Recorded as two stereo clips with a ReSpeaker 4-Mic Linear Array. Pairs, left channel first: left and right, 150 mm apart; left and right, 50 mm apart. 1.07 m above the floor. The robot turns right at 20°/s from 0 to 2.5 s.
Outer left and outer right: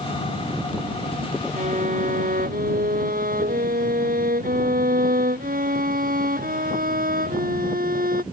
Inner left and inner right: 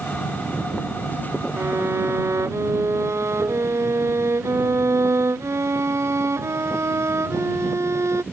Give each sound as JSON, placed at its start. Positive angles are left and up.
{"t": 1.6, "sound": "a violin", "side_deg": -55}